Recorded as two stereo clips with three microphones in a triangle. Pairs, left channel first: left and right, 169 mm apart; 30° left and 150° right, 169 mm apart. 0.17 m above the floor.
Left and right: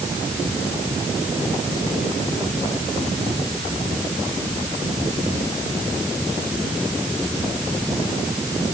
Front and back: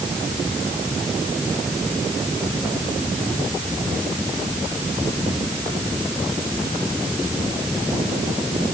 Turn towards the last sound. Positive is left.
No sound to turn to.